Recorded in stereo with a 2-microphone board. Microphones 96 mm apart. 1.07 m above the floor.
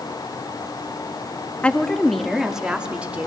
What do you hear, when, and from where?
1.6 s a woman speaking: 15° left (ahead or behind), 1.9 m; by 3.3 s 15° right (ahead or behind), 3.5 m